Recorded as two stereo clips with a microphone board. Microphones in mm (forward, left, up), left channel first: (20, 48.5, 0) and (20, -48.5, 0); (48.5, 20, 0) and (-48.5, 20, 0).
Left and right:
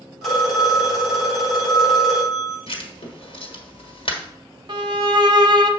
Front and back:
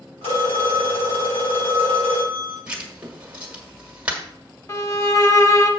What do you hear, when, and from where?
0.2 s a phone ringing: straight ahead, 4 m
2.7 s writing: 105° left, 1.6 m
4.7 s a violin: 55° right, 0.9 m